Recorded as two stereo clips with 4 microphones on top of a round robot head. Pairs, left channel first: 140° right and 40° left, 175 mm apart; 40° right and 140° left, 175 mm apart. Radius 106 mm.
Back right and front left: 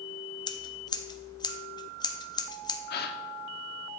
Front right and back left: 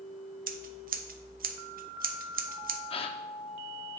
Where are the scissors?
160° left, 0.6 m.